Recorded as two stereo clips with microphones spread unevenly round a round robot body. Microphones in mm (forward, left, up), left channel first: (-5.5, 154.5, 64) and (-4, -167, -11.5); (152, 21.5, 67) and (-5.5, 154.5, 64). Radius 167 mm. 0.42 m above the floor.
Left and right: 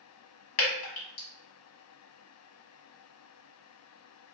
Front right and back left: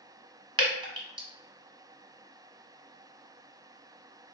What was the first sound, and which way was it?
Dripping, 70° left.